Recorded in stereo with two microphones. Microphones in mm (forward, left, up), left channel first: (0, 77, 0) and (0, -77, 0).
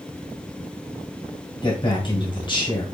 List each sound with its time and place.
1.6 s a man speaking: 35° left (ahead or behind), 1.8 m